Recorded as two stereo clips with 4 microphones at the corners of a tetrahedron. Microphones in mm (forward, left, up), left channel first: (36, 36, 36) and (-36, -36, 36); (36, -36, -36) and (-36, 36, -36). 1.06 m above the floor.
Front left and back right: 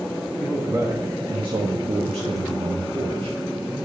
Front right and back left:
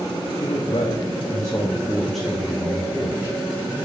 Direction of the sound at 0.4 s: 60° right.